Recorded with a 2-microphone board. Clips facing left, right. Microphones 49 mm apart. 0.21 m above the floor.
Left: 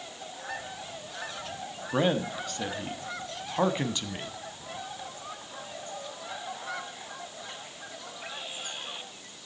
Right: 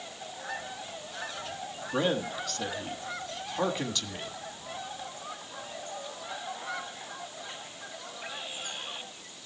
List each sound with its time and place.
1.9 s a man speaking: 20° left (ahead or behind), 1.5 m